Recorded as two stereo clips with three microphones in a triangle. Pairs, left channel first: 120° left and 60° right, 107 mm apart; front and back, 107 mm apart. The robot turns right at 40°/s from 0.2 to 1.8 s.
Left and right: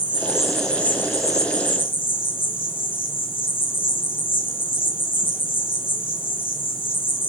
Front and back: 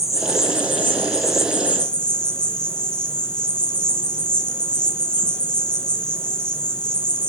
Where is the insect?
15° left, 2.5 m; by 7.3 s 80° left, 2.5 m.